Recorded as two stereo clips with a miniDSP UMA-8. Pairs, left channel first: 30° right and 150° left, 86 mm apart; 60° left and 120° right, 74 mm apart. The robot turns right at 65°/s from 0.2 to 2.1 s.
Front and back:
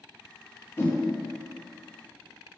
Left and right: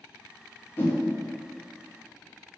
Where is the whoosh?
15° left, 0.6 m; by 1.0 s 30° left, 0.6 m.